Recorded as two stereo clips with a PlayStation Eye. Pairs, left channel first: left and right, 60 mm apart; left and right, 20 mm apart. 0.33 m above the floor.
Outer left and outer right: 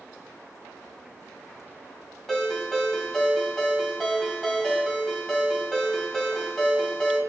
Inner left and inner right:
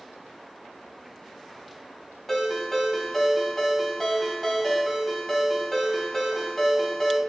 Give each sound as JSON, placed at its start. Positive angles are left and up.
{"t": 2.3, "sound": "a ringtone", "side_deg": 5, "distance_m": 1.4}